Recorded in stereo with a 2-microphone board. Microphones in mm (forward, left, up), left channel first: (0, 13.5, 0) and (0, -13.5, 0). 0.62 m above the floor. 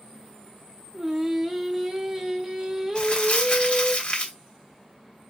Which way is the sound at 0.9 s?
15° right (ahead or behind).